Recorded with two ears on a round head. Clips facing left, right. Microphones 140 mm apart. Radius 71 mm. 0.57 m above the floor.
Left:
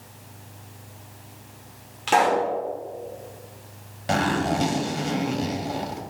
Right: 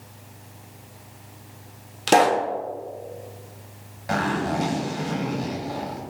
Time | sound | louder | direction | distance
2.1 | a pop | right 2 dB | 45° right (ahead or behind) | 1.0 m
4.1 | a zipper | left 1 dB | 35° left (ahead or behind) | 1.2 m